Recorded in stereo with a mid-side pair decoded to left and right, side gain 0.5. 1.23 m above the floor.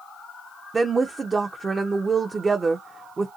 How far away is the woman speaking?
About 0.5 m.